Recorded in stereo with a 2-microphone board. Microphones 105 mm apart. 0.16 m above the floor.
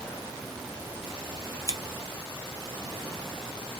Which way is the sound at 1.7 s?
40° left (ahead or behind).